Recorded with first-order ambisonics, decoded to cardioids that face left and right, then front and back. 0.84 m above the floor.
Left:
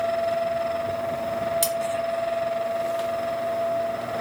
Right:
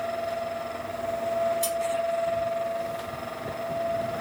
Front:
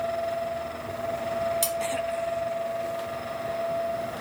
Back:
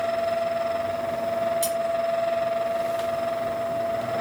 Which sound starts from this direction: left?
Cutlery clinking, at 1.6 s.